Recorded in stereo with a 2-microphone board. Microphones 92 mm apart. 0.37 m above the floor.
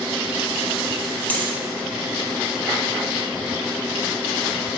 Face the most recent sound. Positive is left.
turn(degrees=15)  # may be behind; listen again after turning